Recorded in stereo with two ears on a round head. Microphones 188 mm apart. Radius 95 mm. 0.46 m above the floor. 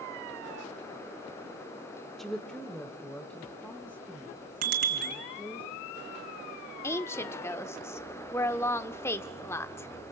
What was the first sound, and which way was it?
A woman speaking, centre (ahead or behind).